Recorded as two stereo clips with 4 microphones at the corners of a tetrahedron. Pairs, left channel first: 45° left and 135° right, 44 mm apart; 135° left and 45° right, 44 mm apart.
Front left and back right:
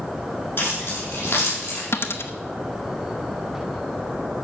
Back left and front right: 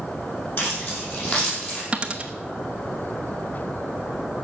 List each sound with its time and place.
0.6 s keys jangling: 85° left, 7 m; by 1.8 s 75° left, 6.5 m
1.9 s a dropped coin: 20° left, 0.9 m